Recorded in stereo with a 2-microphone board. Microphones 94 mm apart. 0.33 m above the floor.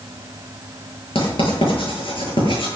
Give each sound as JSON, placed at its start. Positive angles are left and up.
{"t": 1.1, "sound": "writing", "side_deg": 65, "distance_m": 7.0}